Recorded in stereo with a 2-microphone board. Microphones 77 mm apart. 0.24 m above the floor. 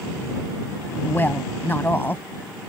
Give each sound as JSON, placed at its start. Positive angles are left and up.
{"t": 1.0, "sound": "a woman speaking", "side_deg": 25}